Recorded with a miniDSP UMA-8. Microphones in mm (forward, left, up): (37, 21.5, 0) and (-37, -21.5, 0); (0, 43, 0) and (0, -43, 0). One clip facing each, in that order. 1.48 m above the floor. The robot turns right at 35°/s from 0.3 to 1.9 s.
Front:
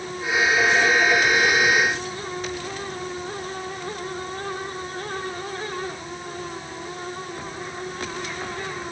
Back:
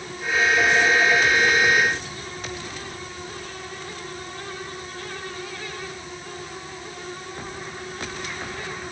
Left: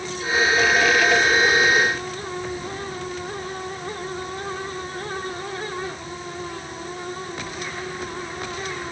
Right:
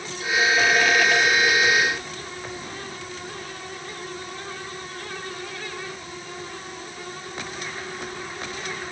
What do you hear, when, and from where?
Only background noise.